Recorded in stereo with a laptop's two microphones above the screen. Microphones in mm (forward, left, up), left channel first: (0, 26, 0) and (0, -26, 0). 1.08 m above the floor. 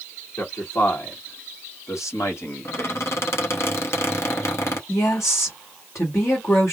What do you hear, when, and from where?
0.4 s a man speaking: 85° left, 1.6 m; by 3.2 s 30° left (ahead or behind), 0.8 m
2.6 s a squeak: 55° left (ahead or behind), 0.7 m
4.9 s a woman speaking: 65° left (ahead or behind), 1.2 m